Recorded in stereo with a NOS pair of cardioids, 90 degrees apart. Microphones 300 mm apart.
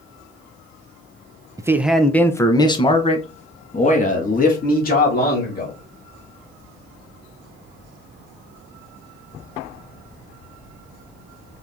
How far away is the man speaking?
About 0.7 m.